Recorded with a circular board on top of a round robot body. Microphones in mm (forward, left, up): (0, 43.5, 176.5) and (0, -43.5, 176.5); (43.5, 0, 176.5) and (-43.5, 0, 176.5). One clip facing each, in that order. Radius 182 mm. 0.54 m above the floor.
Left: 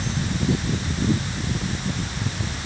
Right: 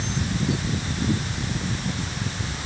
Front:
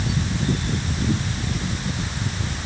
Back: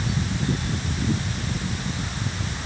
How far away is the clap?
I don't hear a clap.